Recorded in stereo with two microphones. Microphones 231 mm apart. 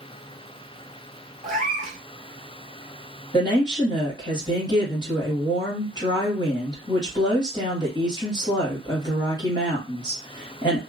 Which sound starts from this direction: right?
A cat meowing, at 1.4 s.